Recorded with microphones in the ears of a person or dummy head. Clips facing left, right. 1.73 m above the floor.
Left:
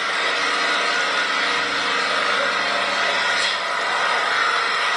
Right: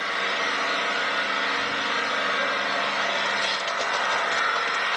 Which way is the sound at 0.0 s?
80° left.